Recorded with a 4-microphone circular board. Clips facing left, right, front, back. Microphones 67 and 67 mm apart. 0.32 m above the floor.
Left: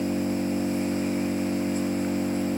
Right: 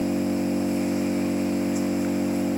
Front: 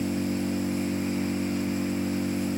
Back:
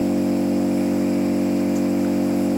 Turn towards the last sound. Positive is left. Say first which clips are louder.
# right 2 dB, back 8 dB
turn(degrees=-170)